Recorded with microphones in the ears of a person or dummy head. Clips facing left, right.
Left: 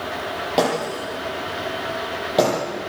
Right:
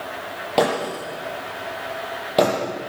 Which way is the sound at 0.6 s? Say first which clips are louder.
Right 1 dB; centre (ahead or behind).